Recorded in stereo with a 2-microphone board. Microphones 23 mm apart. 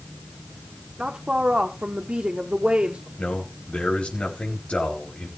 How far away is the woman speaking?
About 1.6 m.